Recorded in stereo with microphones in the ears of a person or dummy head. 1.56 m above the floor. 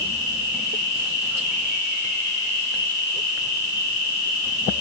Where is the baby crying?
I don't hear a baby crying.